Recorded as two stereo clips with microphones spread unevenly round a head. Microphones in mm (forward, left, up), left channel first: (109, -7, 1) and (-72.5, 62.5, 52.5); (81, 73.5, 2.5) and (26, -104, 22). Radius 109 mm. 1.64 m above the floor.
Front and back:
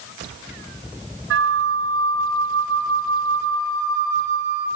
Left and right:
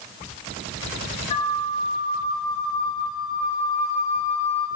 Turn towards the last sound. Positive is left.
turn(degrees=135)